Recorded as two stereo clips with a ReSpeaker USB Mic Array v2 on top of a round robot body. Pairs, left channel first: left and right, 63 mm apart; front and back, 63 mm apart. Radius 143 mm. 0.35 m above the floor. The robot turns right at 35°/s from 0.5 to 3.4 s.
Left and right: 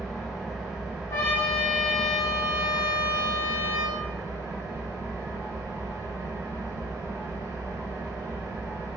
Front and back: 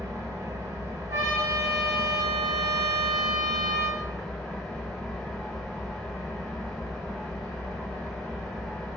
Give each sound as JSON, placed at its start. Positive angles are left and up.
{"t": 0.0, "sound": "an engine running", "azimuth_deg": 175, "distance_m": 1.1}
{"t": 1.1, "sound": "a trumpet", "azimuth_deg": 140, "distance_m": 0.6}